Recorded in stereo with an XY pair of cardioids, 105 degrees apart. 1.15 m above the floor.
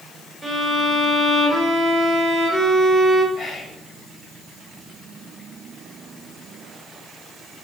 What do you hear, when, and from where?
0.4 s a violin: 10° right, 1.3 m
3.3 s whispering: 45° left, 0.6 m